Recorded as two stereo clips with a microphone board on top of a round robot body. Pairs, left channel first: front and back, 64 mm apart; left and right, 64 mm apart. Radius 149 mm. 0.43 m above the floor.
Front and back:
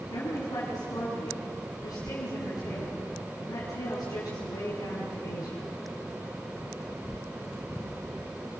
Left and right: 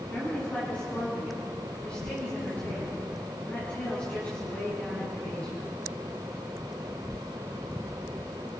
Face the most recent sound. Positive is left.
turn(degrees=20)